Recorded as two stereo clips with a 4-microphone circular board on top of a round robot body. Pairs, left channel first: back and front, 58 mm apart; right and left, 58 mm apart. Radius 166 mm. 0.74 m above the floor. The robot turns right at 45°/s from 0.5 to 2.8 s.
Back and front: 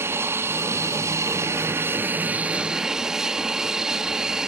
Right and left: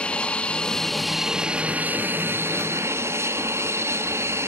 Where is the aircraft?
25° right; by 4.5 s 80° left.